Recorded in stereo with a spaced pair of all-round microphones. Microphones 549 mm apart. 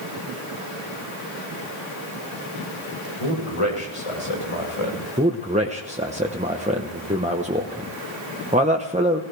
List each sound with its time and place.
3.2 s a man speaking: 75° left (ahead or behind), 5.5 m; by 5.0 s 60° left (ahead or behind), 6 m
5.2 s a man speaking: 15° right (ahead or behind), 1.1 m